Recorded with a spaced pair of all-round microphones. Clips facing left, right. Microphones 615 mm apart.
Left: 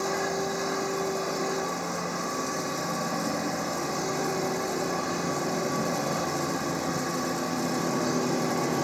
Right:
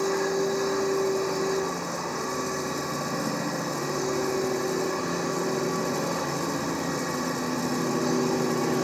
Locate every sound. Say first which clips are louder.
0.0 s a machine running: right 5 dB; 10° left (ahead or behind)